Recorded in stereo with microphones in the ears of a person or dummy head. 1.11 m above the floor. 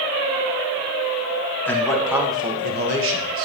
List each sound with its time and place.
1.6 s a man speaking: 10° left (ahead or behind), 1.6 m; by 3.5 s 70° right (ahead or behind), 1.5 m